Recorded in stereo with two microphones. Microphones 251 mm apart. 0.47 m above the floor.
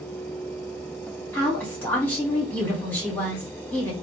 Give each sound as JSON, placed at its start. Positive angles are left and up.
{"t": 1.3, "sound": "a woman speaking", "side_deg": 5, "distance_m": 1.8}